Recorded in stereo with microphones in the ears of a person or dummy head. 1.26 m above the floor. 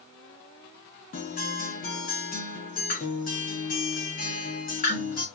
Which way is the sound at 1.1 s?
40° left (ahead or behind).